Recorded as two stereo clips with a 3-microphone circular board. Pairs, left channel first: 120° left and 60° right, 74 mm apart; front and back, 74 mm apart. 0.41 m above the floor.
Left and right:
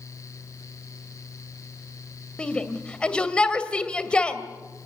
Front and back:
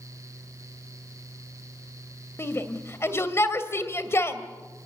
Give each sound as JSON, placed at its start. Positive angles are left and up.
{"t": 2.4, "sound": "a shout", "azimuth_deg": 45, "distance_m": 2.5}